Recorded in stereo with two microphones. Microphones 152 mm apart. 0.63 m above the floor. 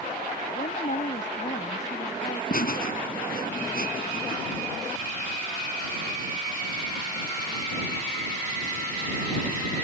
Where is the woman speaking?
50° left (ahead or behind).